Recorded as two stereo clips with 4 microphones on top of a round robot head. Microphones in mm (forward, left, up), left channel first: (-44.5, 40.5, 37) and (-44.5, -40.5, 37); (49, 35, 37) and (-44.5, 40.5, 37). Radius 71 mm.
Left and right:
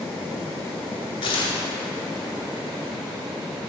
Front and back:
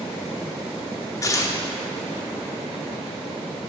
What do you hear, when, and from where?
1.2 s tearing paper: 50° left, 0.8 m